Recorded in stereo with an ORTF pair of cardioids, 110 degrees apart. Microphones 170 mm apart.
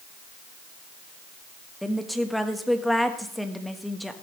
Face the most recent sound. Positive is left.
turn(degrees=0)